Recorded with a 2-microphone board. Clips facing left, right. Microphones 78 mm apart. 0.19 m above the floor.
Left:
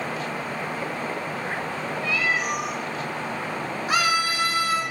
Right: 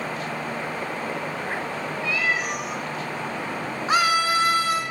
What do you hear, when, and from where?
2.0 s a cat meowing: 10° right (ahead or behind), 2.5 m
3.9 s a scream: 30° right (ahead or behind), 2 m